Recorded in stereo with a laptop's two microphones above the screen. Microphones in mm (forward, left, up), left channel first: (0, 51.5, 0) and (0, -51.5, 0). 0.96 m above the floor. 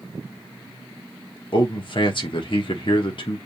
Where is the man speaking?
55° left (ahead or behind), 1.2 m.